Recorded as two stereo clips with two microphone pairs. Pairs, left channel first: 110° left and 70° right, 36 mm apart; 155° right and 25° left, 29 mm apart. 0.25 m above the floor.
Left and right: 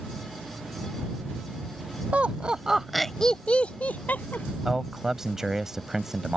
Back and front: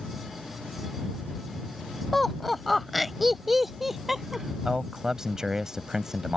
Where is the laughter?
75° right; by 4.5 s 105° left.